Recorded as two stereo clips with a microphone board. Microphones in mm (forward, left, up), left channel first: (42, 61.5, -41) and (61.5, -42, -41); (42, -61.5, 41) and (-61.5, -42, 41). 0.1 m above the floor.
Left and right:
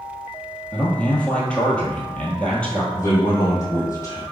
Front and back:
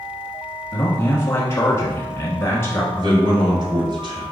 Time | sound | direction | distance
0.7 | a man speaking | 30° left | 1.3 m
2.9 | a man speaking | 150° left | 2.0 m